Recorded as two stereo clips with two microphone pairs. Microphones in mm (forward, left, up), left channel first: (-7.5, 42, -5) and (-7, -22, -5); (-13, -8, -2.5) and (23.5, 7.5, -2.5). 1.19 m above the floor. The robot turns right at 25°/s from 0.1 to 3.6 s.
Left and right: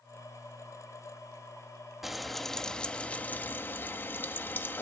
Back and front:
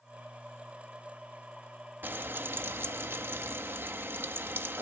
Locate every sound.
2.0 s frying: 5° right, 0.9 m; by 4.8 s 35° left, 0.9 m